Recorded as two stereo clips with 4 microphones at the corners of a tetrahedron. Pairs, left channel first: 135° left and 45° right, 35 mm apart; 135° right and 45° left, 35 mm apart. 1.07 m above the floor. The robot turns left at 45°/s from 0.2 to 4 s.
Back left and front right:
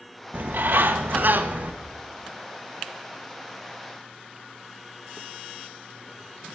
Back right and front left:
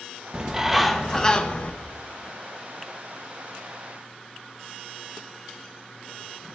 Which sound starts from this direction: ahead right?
A bird, at 0.3 s.